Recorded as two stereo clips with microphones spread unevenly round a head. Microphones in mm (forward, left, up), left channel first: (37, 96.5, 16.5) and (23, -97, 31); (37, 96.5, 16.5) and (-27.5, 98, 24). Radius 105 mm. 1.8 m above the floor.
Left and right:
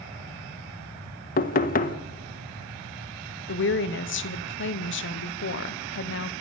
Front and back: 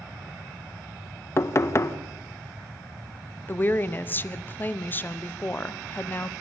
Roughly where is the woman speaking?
Ahead left.